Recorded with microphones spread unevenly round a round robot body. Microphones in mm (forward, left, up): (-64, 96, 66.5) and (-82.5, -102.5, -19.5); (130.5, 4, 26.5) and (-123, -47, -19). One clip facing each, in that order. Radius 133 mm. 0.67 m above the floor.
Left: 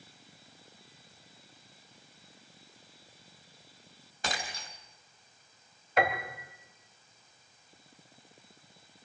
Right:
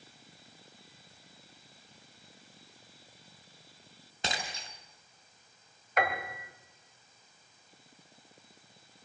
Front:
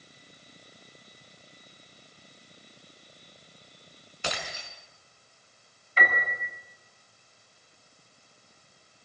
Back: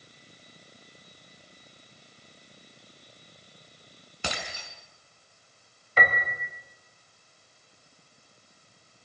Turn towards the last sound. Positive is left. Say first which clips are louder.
# left 2 dB, back 2 dB
turn(degrees=150)